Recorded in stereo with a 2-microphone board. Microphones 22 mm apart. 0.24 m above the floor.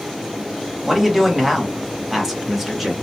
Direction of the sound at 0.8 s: 5° right (ahead or behind).